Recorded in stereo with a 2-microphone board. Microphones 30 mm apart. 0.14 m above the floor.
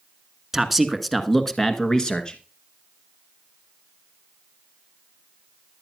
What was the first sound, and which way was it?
A man speaking, 5° right (ahead or behind).